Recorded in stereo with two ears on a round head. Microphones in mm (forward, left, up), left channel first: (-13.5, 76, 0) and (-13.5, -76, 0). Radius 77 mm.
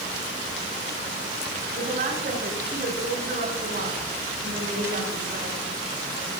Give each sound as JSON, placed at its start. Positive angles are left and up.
{"t": 1.7, "sound": "a woman speaking", "side_deg": -50, "distance_m": 6.0}